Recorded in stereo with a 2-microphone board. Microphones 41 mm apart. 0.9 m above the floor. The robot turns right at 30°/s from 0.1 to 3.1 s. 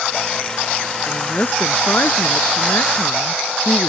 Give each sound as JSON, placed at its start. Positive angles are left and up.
{"t": 1.1, "sound": "a woman speaking", "azimuth_deg": 40}